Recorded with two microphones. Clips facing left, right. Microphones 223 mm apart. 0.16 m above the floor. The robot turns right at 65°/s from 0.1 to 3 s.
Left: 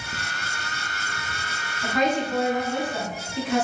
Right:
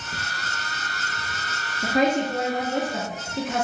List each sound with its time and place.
1.8 s a woman speaking: 95° right, 1.3 m; by 3.6 s 20° right, 1.3 m